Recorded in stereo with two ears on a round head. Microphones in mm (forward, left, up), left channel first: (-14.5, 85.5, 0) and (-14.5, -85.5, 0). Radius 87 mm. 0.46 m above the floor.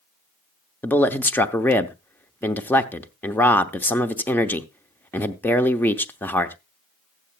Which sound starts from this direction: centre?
A man speaking, at 0.8 s.